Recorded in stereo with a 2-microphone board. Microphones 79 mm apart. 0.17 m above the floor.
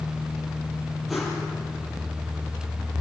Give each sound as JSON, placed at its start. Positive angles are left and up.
{"t": 1.1, "sound": "a whoosh", "side_deg": 0, "distance_m": 5.0}